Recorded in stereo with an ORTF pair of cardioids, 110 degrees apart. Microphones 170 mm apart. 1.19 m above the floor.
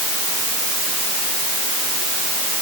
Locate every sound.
Only background noise.